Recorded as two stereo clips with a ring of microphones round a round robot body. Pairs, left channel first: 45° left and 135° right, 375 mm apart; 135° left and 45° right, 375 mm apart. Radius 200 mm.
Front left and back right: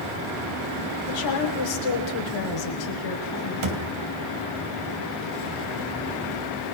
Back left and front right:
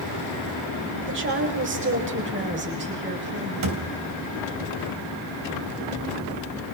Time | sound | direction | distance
1.1 | a woman speaking | 15° left | 5 m
3.6 | a thud | 95° right | 2.5 m